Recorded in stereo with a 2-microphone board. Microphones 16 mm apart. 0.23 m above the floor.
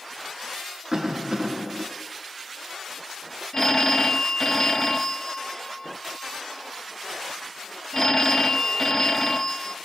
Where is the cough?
35° right (ahead or behind), 1.9 m.